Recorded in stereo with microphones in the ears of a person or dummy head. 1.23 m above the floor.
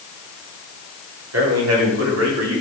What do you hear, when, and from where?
1.3 s a man speaking: 85° right, 4 m